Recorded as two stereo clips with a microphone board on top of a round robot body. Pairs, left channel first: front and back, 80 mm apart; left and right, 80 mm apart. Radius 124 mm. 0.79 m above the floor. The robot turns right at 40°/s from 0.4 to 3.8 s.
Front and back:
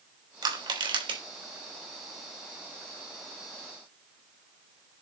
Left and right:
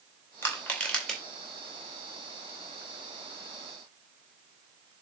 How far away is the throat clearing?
No throat clearing in this recording.